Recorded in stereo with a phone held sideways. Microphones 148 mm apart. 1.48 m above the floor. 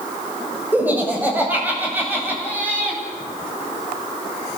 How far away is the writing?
I don't hear writing.